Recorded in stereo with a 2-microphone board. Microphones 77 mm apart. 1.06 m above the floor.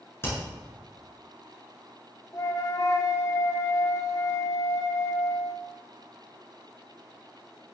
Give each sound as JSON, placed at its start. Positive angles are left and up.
{"t": 0.2, "sound": "hammering", "side_deg": 35, "distance_m": 6.5}
{"t": 2.3, "sound": "a flute", "side_deg": 50, "distance_m": 1.1}